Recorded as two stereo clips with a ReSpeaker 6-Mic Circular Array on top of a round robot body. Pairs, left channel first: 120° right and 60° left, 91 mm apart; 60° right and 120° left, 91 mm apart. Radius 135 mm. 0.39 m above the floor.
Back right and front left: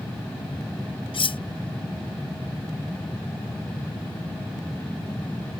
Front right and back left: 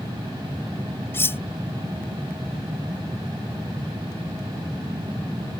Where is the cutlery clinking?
120° right.